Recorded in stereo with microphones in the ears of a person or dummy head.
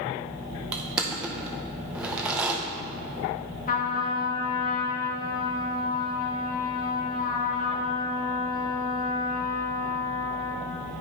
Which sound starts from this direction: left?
A trumpet, at 3.7 s.